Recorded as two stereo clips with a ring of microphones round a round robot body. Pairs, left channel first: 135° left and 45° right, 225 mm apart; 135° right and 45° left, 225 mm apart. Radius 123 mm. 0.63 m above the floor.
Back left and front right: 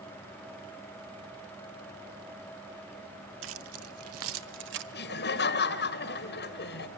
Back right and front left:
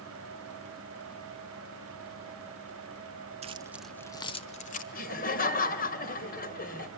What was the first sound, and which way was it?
Keys jangling, 15° right.